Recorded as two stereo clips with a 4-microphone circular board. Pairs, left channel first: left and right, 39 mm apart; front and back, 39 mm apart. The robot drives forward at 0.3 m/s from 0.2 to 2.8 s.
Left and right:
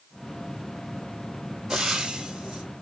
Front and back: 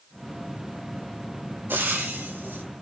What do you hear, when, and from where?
1.7 s frying: 165° right, 1.4 m